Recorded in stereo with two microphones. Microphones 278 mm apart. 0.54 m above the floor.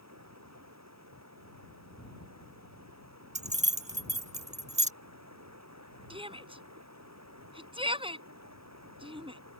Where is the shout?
20° right (ahead or behind).